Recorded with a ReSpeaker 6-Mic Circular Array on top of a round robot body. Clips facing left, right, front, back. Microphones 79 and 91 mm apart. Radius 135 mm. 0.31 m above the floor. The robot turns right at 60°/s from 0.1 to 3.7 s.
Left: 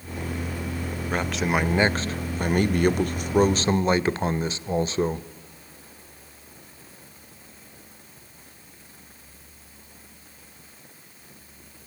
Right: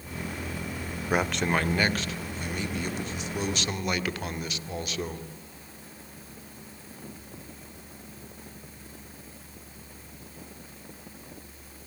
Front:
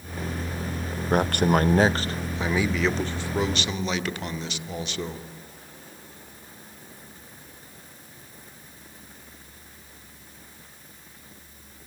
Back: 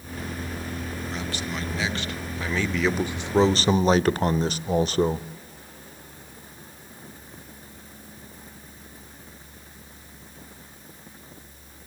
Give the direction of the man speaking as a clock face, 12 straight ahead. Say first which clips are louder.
Left 1 dB, front 15 dB; 12 o'clock.